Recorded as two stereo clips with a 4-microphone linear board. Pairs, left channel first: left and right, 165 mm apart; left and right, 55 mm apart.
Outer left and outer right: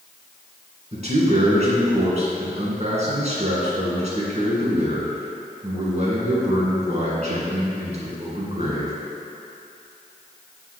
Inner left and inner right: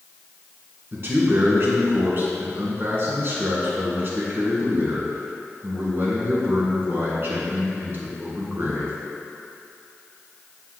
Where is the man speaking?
45° right (ahead or behind), 2.5 m.